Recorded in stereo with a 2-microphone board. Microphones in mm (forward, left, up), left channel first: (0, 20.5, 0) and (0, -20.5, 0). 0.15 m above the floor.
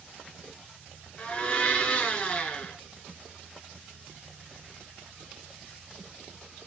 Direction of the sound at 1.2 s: 25° left (ahead or behind).